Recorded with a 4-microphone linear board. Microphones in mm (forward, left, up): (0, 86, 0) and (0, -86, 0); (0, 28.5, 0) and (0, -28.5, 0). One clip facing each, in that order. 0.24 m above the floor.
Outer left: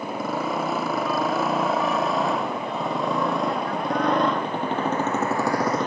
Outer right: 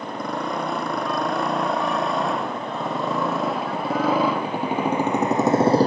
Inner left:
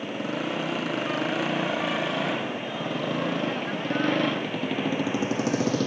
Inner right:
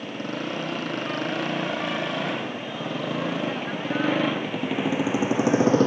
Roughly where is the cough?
No cough in this recording.